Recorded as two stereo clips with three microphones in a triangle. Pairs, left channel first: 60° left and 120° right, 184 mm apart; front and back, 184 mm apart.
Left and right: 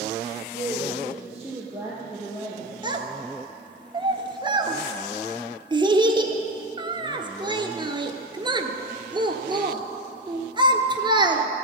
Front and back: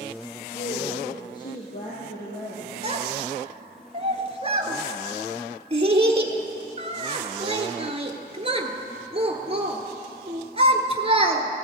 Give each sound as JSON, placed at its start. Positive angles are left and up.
{"t": 0.5, "sound": "a woman speaking", "azimuth_deg": -50, "distance_m": 3.5}
{"t": 2.8, "sound": "a child speaking", "azimuth_deg": -160, "distance_m": 1.0}